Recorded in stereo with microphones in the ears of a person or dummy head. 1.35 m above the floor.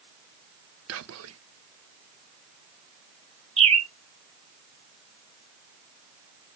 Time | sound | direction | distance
0.9 | whispering | 85° right | 0.8 m
3.6 | a bird | 30° right (ahead or behind) | 1.1 m